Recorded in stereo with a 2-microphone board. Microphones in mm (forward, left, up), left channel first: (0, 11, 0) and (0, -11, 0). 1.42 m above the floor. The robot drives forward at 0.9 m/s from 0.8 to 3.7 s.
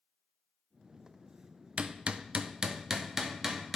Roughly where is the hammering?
Right.